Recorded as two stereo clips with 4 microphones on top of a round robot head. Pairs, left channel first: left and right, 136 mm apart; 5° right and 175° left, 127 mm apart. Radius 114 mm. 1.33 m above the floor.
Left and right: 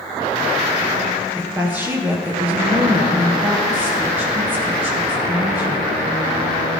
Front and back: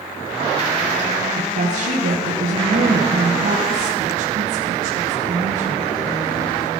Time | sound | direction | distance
1.4 | a woman speaking | 165° right | 1.5 m